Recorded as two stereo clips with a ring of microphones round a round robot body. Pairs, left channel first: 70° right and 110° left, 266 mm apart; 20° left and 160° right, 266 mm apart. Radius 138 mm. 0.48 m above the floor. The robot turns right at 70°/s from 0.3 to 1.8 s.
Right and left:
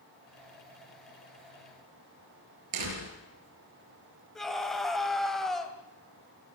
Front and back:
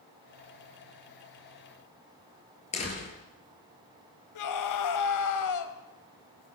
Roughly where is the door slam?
Left.